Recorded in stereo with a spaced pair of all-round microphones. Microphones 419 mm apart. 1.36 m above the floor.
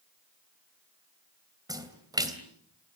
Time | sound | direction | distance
1.7 | a splash | 10° right (ahead or behind) | 3 m